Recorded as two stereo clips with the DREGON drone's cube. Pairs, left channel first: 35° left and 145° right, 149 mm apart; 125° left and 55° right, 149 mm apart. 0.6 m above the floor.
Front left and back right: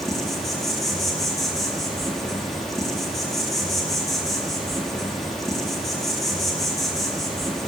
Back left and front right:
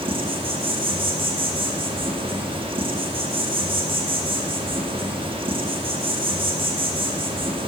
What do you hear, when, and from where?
0.0 s an insect: 55° right, 0.7 m